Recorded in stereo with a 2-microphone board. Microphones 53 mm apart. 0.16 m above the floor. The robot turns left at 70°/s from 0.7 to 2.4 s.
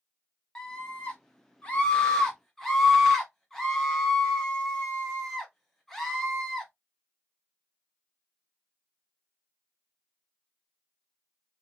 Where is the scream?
15° left (ahead or behind), 1.1 m; by 6.7 s 5° left (ahead or behind), 1.1 m.